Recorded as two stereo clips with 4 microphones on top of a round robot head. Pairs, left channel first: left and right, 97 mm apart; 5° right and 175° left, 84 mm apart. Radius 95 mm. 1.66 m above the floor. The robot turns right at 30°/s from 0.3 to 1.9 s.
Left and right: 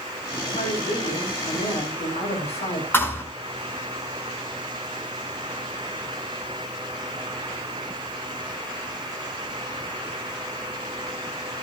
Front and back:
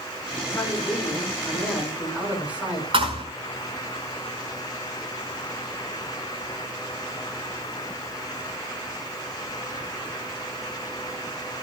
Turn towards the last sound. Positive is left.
turn(degrees=155)